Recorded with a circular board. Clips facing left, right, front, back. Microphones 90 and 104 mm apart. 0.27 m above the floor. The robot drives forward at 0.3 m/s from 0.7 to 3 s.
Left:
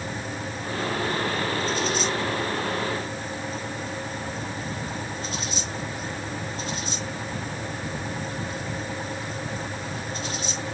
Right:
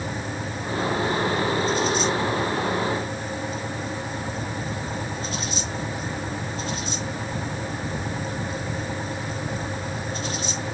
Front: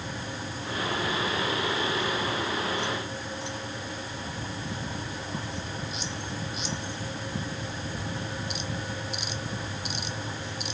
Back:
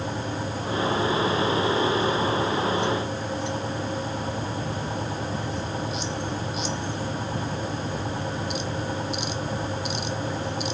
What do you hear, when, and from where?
Only background noise.